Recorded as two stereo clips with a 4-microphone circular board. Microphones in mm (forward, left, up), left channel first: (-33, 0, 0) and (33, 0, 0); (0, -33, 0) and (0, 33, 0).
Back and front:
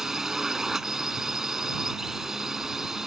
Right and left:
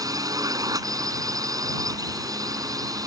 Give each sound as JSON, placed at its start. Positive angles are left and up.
{"t": 0.0, "sound": "a drone", "azimuth_deg": 80}